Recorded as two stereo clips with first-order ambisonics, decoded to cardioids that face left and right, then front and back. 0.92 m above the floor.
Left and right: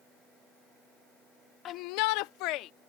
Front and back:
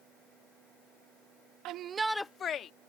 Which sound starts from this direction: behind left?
A shout, at 1.6 s.